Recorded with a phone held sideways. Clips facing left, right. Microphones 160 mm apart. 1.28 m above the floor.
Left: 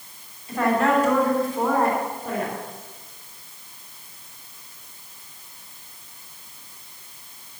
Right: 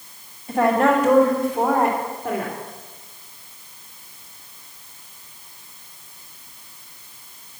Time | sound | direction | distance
0.5 | a woman speaking | 65° right (ahead or behind) | 3 m